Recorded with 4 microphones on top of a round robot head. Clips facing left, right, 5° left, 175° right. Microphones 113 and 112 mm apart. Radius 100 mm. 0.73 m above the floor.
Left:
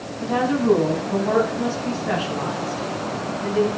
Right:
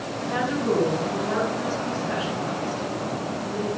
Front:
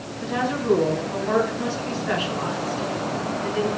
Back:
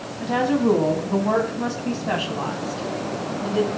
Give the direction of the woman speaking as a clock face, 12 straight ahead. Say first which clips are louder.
Left 6 dB, back 5 dB; 7 o'clock.